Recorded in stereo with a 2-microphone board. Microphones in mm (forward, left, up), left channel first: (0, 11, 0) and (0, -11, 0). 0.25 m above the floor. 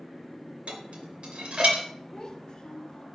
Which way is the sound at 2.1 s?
25° left (ahead or behind).